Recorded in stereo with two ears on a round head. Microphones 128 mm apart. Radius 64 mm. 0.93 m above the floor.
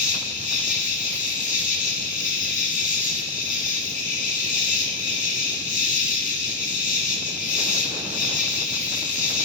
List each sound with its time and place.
0.0 s an insect: 65° left (ahead or behind), 1.7 m